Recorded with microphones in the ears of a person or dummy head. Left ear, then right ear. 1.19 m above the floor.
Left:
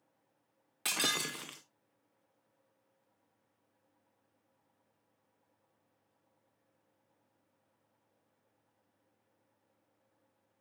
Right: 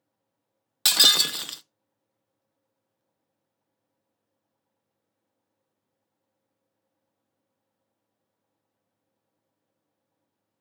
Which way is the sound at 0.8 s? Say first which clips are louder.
Right 15 dB; 35° right (ahead or behind).